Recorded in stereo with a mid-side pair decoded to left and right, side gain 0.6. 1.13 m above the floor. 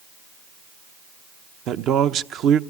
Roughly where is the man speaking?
Ahead right.